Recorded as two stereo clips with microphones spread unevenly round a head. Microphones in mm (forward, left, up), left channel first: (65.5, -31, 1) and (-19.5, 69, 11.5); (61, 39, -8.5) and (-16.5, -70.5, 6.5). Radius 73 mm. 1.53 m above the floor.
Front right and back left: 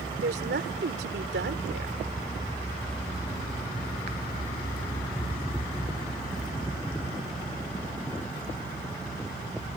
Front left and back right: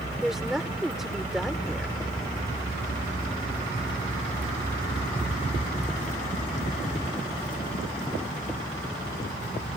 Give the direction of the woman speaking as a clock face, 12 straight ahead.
7 o'clock.